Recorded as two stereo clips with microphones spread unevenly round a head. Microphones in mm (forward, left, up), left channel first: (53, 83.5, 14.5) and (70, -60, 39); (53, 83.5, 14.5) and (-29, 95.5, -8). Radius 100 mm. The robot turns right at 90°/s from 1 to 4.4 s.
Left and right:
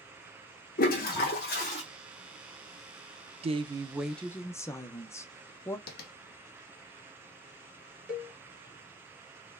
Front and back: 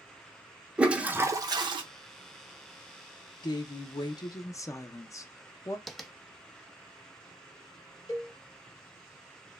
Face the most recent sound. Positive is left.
turn(degrees=-5)